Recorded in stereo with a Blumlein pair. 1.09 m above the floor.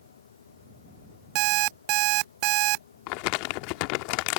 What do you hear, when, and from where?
0.0 s a fan: 65° left
1.4 s an alarm clock: 40° right
3.1 s crumpling: 45° left